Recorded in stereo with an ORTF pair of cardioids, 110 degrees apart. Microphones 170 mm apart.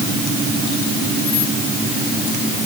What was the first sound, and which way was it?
Only background noise.